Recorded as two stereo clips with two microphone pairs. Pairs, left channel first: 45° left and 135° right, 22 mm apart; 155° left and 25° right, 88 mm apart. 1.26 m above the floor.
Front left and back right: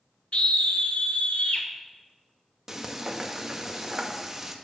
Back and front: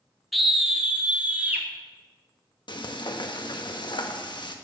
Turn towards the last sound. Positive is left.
turn(degrees=150)